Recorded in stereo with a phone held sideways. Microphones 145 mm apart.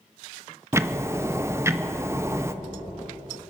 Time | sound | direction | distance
0.7 | ticking | 20° right (ahead or behind) | 0.6 m